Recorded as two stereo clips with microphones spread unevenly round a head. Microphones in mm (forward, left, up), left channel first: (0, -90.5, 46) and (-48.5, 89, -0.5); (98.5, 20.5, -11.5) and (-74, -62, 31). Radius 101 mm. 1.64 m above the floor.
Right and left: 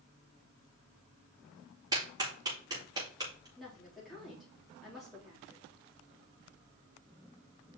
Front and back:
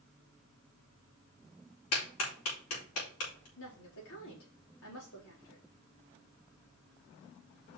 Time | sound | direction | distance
1.9 | a clap | 30° left | 4 m
3.6 | a woman speaking | 15° left | 4 m